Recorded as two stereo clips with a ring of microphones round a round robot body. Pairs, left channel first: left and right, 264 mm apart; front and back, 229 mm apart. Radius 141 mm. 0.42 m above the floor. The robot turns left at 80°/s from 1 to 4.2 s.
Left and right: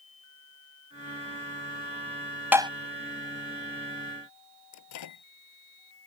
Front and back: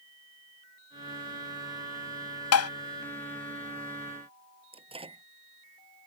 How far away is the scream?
I don't hear a scream.